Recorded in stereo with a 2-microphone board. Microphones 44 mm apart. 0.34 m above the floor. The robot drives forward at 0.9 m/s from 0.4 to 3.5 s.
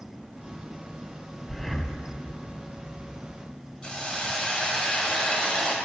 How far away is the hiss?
About 1.4 m.